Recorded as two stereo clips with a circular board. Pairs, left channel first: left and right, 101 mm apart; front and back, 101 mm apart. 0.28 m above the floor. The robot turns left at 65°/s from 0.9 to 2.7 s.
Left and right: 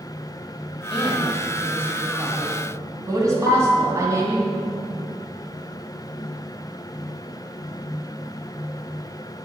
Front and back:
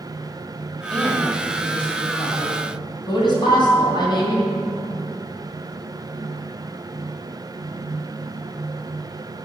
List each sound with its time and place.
0.9 s a woman speaking: 85° left, 2 m; by 4.5 s 35° right, 2 m
3.5 s a piano: 85° left, 1.2 m